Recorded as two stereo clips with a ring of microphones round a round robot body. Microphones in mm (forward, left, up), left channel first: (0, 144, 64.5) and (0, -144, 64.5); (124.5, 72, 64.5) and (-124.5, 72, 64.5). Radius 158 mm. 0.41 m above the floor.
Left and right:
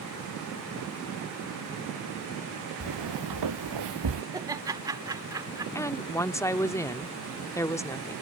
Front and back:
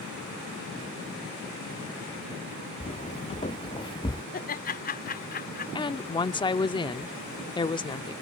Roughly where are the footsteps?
Right.